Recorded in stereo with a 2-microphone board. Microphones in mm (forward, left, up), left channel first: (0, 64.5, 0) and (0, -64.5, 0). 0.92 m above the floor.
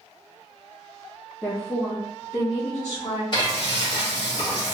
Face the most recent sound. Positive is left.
turn(degrees=40)  # may be behind; listen again after turning